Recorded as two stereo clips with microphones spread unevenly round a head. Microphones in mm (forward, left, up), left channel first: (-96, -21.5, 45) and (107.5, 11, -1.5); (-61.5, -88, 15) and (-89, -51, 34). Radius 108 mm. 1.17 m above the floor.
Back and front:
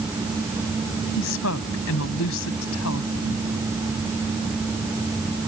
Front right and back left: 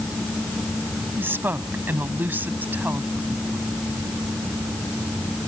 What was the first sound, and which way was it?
A woman speaking, 160° left.